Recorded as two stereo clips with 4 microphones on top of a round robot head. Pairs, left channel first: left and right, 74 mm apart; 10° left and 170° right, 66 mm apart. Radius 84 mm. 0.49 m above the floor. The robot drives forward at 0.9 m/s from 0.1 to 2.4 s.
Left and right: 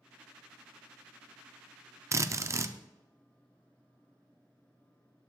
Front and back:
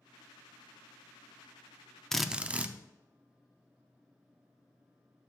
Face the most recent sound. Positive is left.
turn(degrees=-110)